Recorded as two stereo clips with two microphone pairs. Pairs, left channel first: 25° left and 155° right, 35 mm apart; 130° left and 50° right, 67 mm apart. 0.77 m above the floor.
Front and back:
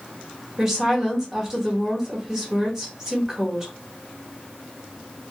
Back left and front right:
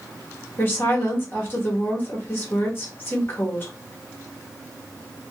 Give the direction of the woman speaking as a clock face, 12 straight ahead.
7 o'clock.